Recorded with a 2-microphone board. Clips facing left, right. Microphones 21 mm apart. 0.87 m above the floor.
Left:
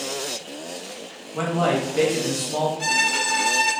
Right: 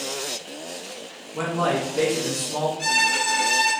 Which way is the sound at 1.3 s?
25° left (ahead or behind).